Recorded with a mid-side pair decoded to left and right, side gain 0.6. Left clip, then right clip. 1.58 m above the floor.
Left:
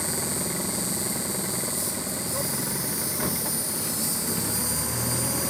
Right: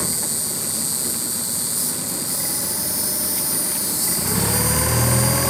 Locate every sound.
0.0 s an insect: 30° right, 1.2 m